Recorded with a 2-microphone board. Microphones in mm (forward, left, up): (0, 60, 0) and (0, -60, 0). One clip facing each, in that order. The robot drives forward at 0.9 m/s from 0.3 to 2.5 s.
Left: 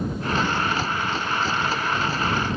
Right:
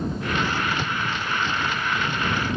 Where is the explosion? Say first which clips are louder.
Left 2 dB; 10° right (ahead or behind); by 1.2 s 5° right (ahead or behind).